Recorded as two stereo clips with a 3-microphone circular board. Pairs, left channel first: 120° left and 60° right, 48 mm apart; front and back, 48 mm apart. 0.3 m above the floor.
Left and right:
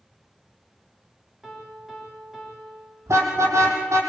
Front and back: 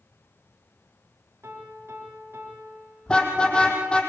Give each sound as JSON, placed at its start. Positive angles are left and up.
{"t": 1.4, "sound": "a piano", "azimuth_deg": -145, "distance_m": 8.5}
{"t": 3.1, "sound": "a car horn", "azimuth_deg": -70, "distance_m": 5.5}